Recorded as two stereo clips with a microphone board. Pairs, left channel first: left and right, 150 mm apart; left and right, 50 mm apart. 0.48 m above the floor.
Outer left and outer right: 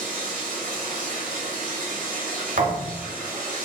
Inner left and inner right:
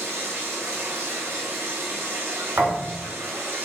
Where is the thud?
80° right, 0.8 m.